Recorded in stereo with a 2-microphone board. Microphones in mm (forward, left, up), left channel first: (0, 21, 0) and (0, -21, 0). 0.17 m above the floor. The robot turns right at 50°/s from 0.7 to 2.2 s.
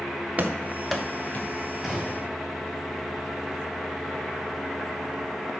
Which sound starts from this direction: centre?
A gunshot, at 1.8 s.